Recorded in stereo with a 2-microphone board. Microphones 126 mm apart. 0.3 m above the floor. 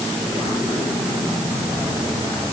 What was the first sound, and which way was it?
Only background noise.